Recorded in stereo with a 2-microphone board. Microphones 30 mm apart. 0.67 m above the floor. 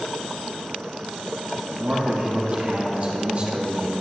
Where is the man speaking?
50° right (ahead or behind), 1.7 m.